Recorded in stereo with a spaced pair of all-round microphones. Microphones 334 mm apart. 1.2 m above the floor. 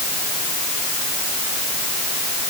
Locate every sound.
Only background noise.